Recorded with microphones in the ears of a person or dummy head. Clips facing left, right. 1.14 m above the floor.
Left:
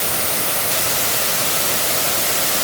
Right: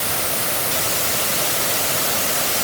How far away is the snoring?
I don't hear snoring.